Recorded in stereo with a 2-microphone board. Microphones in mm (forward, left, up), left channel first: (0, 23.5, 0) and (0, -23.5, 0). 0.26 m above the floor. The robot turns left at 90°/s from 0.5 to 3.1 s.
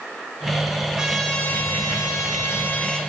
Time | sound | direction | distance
0.9 | a trumpet | 165° right | 1.1 m